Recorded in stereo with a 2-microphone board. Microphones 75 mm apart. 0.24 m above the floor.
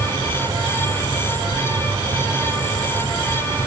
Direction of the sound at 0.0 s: 70° right (ahead or behind).